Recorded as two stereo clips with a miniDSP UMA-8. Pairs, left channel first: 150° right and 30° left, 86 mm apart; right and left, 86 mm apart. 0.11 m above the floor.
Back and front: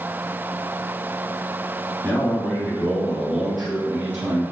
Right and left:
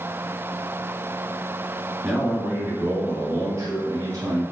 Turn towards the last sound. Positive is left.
turn(degrees=105)